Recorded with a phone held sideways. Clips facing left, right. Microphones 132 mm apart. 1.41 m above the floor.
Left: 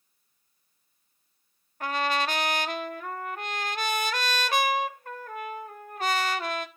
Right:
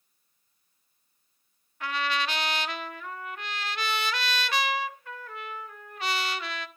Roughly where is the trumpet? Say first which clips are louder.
Left 3 dB; left.